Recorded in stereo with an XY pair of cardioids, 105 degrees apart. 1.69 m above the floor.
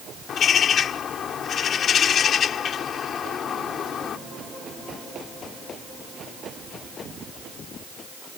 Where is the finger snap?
I don't hear a finger snap.